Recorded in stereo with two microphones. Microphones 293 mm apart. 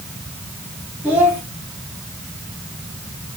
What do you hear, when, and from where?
1.0 s a child speaking: 5° right (ahead or behind), 2.5 m